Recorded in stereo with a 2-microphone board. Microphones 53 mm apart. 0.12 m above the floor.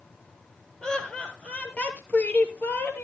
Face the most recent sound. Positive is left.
turn(degrees=40)  # may be behind; listen again after turning